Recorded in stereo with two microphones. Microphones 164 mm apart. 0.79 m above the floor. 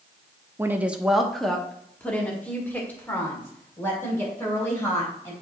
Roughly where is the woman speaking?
Centre.